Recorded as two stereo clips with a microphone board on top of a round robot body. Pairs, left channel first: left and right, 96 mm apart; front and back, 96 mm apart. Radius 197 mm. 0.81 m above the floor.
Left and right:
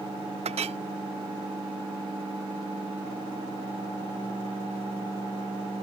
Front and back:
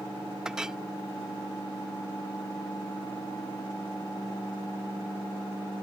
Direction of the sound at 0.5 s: 95° right.